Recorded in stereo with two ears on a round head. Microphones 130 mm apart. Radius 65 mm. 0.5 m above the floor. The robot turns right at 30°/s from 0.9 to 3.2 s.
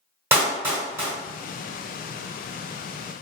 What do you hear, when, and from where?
0.3 s a clap: 15° right (ahead or behind), 1.7 m; by 1.1 s 20° right (ahead or behind), 1.7 m